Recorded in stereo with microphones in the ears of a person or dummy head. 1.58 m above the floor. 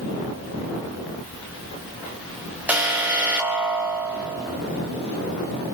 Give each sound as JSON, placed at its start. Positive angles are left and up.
{"t": 2.7, "sound": "an alarm", "side_deg": -10, "distance_m": 2.5}